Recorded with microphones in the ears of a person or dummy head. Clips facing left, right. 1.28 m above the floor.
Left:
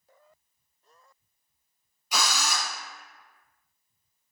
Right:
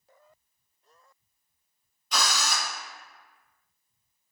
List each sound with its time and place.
2.1 s a drill: 5° left (ahead or behind), 0.7 m